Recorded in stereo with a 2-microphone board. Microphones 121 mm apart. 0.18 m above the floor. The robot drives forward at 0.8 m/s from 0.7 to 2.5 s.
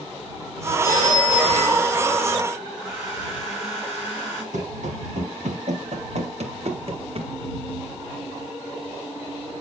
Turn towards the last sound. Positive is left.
turn(degrees=-50)  # may be behind; listen again after turning